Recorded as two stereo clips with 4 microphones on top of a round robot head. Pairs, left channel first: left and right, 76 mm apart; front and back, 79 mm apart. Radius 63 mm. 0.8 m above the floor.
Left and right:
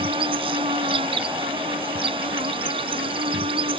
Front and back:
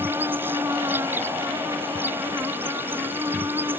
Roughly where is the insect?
Right.